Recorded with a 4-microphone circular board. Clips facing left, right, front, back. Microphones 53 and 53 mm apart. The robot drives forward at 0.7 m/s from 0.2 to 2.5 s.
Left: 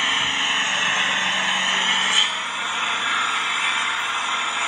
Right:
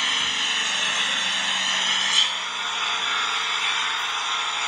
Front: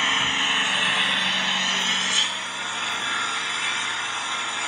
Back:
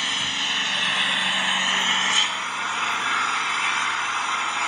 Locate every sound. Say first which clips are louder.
0.0 s an engine running: left 3 dB, front 4 dB; 40° left, 1.2 m; by 4.7 s 155° left, 1.5 m